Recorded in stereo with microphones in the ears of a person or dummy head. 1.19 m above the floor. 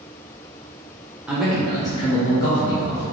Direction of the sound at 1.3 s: Centre (ahead or behind).